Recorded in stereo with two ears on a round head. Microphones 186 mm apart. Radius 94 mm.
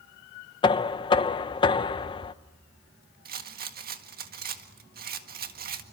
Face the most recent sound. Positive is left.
turn(degrees=-50)  # may be behind; listen again after turning